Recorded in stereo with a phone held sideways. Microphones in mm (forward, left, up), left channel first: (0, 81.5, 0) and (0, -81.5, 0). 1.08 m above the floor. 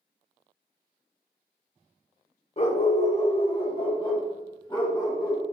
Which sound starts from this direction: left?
A dog barking, at 2.6 s.